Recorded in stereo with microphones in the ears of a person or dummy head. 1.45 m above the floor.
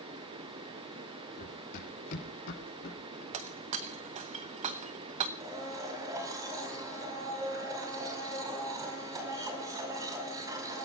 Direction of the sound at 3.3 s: 30° right (ahead or behind).